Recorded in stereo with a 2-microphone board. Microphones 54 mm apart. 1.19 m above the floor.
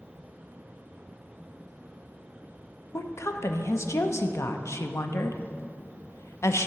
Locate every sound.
2.9 s a woman speaking: 60° left (ahead or behind), 0.5 m